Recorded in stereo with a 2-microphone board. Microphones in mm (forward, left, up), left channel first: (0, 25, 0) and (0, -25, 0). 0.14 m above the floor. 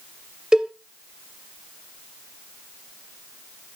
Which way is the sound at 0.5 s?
15° right (ahead or behind).